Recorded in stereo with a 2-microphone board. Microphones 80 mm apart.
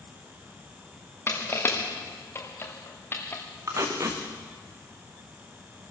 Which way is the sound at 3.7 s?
45° right (ahead or behind).